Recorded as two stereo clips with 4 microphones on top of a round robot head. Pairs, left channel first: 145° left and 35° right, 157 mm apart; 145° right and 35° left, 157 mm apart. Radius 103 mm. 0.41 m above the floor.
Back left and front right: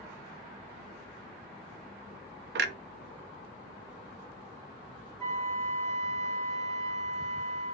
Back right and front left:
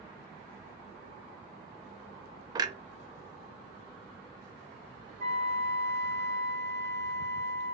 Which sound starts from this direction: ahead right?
A clunk, at 2.5 s.